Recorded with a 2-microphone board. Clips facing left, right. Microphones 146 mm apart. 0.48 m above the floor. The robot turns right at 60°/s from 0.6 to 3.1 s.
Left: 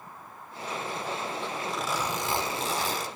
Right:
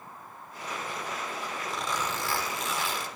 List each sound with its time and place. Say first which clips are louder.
1.7 s a zipper: left 1 dB; 5° right, 1.6 m; by 3.1 s 80° left, 1.6 m